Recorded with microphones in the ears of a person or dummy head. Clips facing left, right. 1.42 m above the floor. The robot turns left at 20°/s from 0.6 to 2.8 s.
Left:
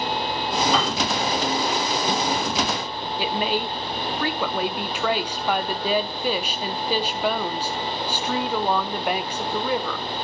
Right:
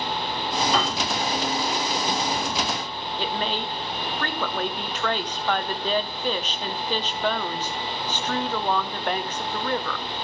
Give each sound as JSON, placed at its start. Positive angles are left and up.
{"t": 0.7, "sound": "a piano", "side_deg": 5, "distance_m": 3.5}
{"t": 3.2, "sound": "a woman speaking", "side_deg": 5, "distance_m": 0.9}